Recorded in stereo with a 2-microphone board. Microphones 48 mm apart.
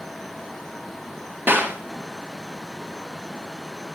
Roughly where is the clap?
Right.